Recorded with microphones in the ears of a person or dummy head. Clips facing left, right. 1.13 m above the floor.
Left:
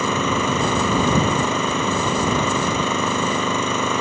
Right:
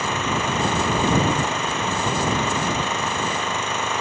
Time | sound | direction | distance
0.0 | an engine running | 85° left | ?